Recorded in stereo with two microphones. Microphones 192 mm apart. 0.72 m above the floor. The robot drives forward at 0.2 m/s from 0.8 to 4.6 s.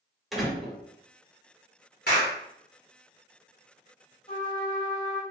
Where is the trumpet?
30° left (ahead or behind), 2.0 m.